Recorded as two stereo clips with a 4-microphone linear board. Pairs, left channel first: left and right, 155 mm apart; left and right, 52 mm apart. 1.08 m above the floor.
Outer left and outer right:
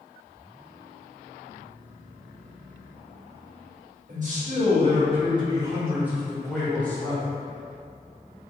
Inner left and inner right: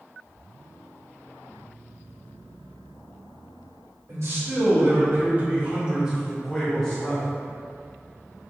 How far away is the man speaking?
About 1.7 m.